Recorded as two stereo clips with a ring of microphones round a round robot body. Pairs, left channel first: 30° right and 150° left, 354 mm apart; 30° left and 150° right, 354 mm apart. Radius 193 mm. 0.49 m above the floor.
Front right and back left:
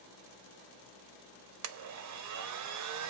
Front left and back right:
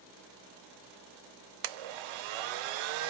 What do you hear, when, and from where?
1.6 s a blender: 165° right, 0.6 m